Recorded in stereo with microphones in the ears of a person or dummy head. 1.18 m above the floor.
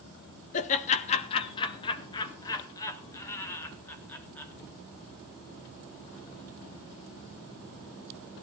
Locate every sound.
0.5 s laughter: 40° left (ahead or behind), 1.4 m; by 4.5 s 10° left (ahead or behind), 3.5 m